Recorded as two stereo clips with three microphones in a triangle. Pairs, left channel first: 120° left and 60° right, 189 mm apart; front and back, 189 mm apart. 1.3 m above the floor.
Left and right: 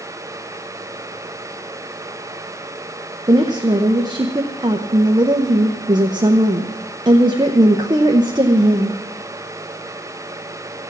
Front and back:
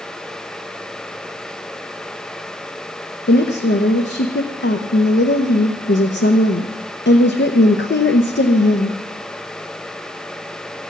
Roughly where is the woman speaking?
Ahead.